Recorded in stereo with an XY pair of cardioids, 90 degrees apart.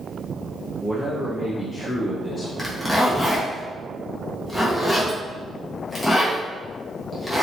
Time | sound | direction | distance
0.8 | a man speaking | 5° right | 0.7 m
2.6 | a zipper | 10° left | 1.0 m